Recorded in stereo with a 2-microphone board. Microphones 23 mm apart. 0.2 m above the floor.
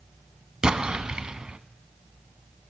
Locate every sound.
0.6 s an explosion: 40° right (ahead or behind), 0.8 m